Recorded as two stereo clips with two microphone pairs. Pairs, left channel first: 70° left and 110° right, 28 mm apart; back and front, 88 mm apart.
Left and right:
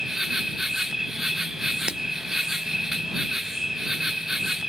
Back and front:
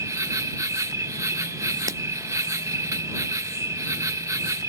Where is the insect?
40° right.